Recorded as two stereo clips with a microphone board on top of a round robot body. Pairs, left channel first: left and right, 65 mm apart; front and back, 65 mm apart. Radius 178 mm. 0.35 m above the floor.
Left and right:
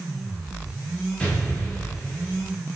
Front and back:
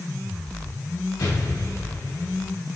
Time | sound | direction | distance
1.2 | an explosion | 20° left | 4.5 m